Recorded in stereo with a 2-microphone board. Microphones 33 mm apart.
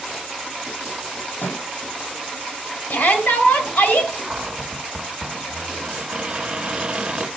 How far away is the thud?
About 7 m.